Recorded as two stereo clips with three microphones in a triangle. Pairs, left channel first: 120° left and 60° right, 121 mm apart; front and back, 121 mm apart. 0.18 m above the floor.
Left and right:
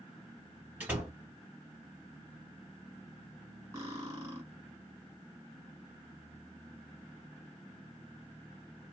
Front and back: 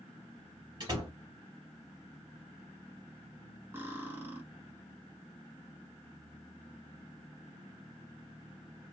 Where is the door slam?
135° right, 1.5 m.